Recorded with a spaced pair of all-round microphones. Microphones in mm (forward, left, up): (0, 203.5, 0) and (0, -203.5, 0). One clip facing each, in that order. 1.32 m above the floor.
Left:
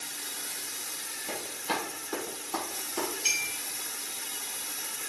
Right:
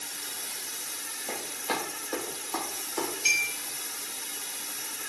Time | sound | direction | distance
1.3 | running footsteps | 20° left (ahead or behind) | 1.6 m
3.2 | a clink | 40° right (ahead or behind) | 1.1 m